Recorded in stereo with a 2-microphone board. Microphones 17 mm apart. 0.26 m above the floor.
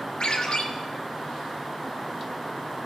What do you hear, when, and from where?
0.2 s a ringtone: 75° left (ahead or behind), 3 m